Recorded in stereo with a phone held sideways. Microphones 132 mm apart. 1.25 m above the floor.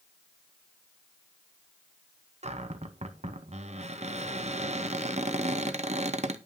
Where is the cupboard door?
55° right (ahead or behind), 0.7 m.